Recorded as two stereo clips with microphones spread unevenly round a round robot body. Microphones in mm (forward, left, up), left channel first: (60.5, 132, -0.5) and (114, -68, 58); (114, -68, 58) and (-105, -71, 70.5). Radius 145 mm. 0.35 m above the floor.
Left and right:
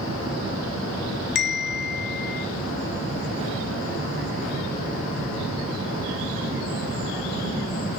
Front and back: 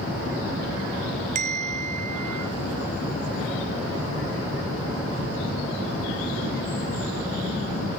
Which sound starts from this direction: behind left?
A bell, at 1.4 s.